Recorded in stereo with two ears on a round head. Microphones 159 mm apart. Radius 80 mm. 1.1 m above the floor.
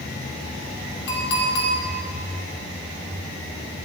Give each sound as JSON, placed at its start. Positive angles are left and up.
{"t": 1.1, "sound": "a clink", "side_deg": 70, "distance_m": 1.9}